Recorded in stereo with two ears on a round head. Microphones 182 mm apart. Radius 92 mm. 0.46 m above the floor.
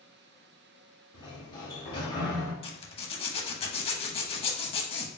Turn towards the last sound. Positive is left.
turn(degrees=25)  # may be behind; listen again after turning